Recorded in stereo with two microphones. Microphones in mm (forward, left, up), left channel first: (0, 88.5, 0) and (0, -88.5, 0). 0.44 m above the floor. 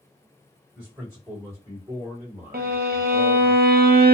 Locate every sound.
0.8 s a man speaking: 20° right (ahead or behind), 1.7 m
2.5 s a violin: 70° right (ahead or behind), 0.6 m